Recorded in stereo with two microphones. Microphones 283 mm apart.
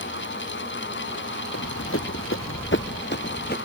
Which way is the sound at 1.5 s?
60° left (ahead or behind).